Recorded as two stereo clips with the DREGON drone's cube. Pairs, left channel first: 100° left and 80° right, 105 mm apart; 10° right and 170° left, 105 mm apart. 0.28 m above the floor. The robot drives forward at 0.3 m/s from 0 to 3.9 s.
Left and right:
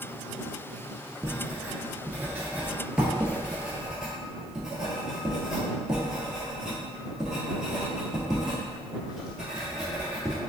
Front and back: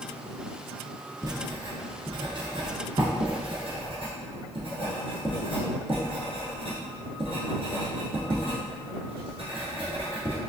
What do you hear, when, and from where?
1.2 s writing: 135° right, 0.5 m; by 10.4 s 165° right, 1.2 m